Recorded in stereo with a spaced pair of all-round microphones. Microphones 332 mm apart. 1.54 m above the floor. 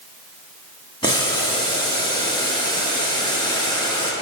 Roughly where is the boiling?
Centre.